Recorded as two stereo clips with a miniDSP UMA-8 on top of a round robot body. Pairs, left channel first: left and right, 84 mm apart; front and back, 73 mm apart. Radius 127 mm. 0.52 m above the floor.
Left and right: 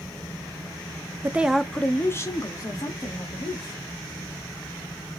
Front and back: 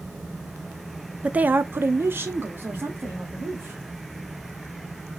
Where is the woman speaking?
125° right, 0.7 m; by 3.8 s 120° left, 1.9 m.